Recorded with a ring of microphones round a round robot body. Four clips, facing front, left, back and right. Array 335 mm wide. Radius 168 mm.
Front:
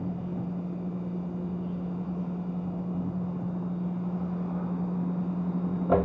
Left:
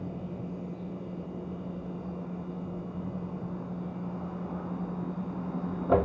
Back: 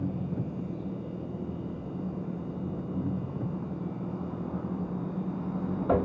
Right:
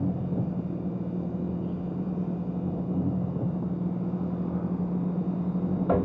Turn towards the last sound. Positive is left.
turn(degrees=-110)